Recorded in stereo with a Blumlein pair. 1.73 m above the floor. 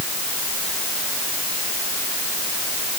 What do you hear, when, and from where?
Only background noise.